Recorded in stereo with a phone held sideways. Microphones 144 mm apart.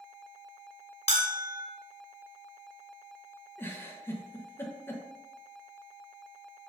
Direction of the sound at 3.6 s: 15° left (ahead or behind).